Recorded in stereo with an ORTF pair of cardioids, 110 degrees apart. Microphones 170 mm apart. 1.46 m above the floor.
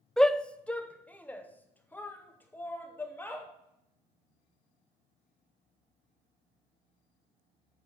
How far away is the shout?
About 0.5 m.